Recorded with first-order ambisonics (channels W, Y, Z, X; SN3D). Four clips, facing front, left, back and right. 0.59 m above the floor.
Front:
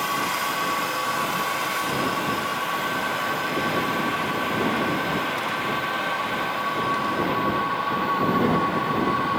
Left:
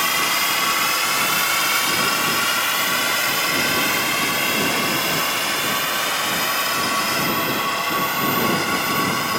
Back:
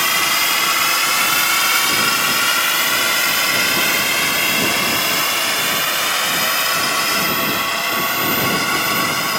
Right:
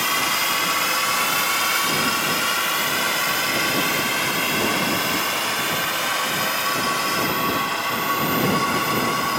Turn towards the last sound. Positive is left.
turn(degrees=170)